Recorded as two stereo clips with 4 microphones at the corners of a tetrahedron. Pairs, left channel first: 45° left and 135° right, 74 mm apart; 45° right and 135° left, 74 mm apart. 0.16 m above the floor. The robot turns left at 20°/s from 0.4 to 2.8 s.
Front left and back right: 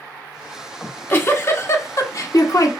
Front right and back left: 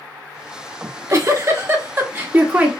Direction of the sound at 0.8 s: 105° left.